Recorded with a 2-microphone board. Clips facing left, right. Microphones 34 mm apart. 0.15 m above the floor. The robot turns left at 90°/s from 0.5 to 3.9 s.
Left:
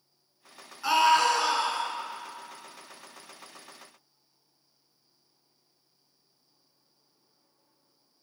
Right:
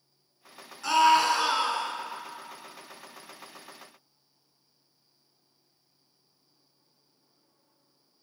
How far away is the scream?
About 1.5 m.